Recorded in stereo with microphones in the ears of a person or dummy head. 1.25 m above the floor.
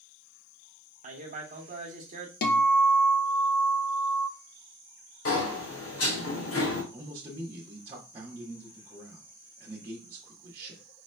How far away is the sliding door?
About 1.6 m.